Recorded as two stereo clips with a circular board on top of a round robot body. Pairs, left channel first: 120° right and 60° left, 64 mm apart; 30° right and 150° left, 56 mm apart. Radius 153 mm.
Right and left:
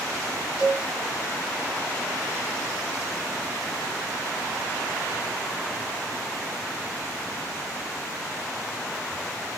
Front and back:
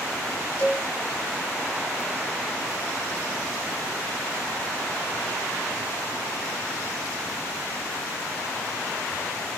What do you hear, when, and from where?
0.6 s a cowbell: 80° right, 4.5 m